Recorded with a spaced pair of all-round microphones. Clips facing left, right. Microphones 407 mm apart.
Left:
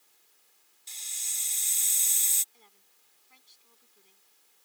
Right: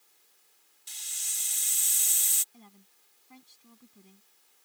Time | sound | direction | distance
0.9 | a hiss | 25° right (ahead or behind) | ?
2.5 | a woman speaking | 65° right (ahead or behind) | ?